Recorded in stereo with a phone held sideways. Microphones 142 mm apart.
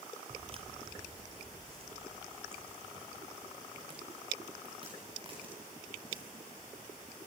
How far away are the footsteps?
About 1.1 m.